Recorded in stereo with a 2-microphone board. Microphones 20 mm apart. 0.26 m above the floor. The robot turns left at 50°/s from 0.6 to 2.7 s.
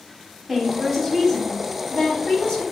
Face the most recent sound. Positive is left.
turn(degrees=80)